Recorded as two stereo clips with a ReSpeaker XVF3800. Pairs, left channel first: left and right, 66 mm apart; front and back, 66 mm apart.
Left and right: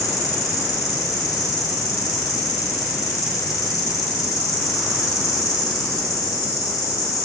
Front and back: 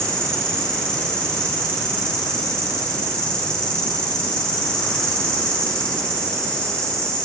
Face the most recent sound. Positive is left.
turn(degrees=75)